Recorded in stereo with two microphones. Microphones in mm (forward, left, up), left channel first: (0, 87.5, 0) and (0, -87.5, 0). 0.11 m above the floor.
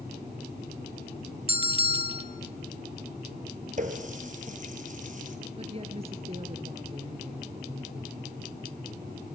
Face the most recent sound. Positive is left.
turn(degrees=-35)  # may be behind; listen again after turning